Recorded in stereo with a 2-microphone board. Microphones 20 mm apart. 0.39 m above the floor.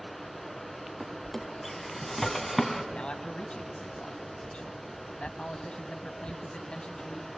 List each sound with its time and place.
0.0 s running water: 10° right (ahead or behind), 2.5 m
1.0 s a drawer: 10° left (ahead or behind), 2 m
2.9 s a man speaking: 70° left (ahead or behind), 2.5 m